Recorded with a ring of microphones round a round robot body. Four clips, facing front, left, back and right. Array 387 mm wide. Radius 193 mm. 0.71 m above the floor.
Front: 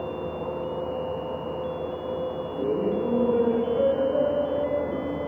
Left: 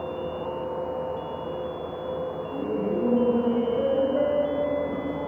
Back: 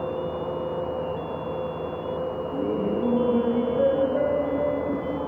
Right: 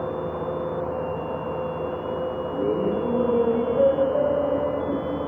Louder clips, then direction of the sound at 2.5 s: Right 3 dB, front 1 dB; 70° right.